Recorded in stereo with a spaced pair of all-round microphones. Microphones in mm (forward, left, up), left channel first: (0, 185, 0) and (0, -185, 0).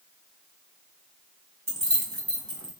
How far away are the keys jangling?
About 1.1 m.